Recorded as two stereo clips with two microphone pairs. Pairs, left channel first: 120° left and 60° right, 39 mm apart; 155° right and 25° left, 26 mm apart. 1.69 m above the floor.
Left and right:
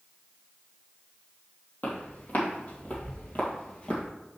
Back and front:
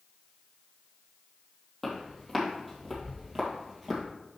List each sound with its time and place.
1.8 s footsteps: 110° left, 2.5 m; by 4.0 s 90° left, 2 m